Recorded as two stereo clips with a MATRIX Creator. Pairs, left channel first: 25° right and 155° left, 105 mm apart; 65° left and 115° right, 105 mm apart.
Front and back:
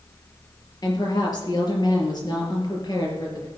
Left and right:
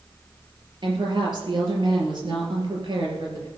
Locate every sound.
0.8 s a woman speaking: 70° right, 4 m